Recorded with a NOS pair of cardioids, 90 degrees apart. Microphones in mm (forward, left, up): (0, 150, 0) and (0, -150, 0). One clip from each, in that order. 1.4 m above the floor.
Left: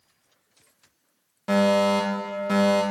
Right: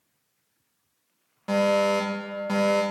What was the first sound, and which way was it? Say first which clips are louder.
A fire alarm: left 1 dB; 10° left.